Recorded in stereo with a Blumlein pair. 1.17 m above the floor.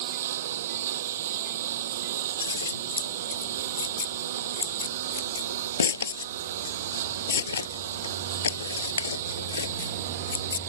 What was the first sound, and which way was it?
A lawn mower, 60° right.